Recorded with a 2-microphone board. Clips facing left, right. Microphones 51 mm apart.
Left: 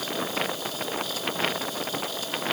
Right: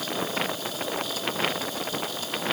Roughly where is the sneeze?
I don't hear a sneeze.